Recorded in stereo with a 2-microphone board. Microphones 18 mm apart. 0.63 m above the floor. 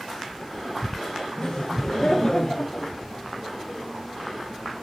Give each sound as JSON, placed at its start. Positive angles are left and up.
{"t": 1.4, "sound": "laughter", "side_deg": 25, "distance_m": 2.5}